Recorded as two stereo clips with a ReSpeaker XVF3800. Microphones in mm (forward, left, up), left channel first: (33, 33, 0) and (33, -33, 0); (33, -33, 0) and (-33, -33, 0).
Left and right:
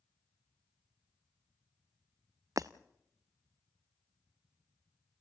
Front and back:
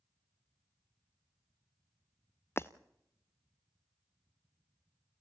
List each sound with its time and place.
2.6 s breaking glass: 55° right, 0.8 m